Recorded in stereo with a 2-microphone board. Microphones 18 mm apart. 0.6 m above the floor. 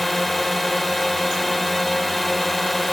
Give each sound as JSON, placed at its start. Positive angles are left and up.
{"t": 0.0, "sound": "a drone", "side_deg": 0}